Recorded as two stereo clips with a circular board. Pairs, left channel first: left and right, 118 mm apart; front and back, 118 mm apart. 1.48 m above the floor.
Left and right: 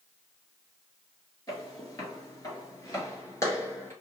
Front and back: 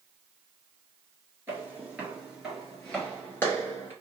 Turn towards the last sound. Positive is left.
turn(degrees=45)